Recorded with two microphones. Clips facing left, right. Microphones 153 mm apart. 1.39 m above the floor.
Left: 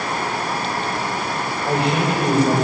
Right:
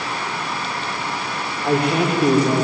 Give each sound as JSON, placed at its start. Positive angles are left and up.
{"t": 1.6, "sound": "a man speaking", "side_deg": -55, "distance_m": 4.0}